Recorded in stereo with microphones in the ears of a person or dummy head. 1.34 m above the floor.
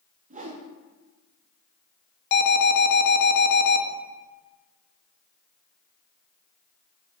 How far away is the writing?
I don't hear writing.